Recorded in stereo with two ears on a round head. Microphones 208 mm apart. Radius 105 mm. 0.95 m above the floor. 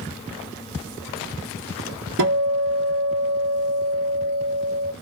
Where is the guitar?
60° right (ahead or behind), 1.2 m.